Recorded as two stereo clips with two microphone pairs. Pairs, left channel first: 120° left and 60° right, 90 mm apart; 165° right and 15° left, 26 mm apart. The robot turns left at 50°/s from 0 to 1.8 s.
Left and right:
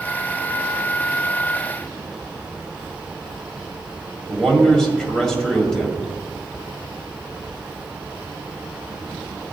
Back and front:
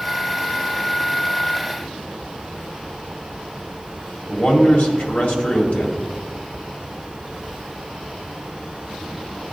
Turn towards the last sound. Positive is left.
turn(degrees=-155)